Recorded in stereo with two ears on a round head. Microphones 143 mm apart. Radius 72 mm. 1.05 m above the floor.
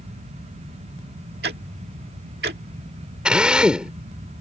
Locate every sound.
1.4 s ticking: 65° right (ahead or behind)
3.2 s a drill: 5° right (ahead or behind)